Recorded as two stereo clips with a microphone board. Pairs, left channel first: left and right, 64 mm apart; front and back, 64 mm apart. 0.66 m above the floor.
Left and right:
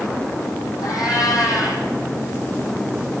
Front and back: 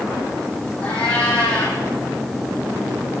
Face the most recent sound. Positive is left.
turn(degrees=70)